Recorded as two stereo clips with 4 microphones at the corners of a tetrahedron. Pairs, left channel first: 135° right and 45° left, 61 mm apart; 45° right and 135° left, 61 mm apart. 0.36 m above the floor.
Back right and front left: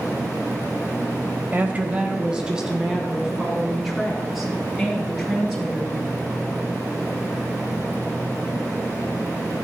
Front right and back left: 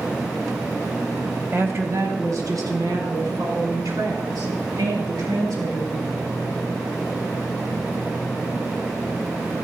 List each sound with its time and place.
1.5 s a woman speaking: 95° left, 1.8 m; by 6.5 s 140° left, 9 m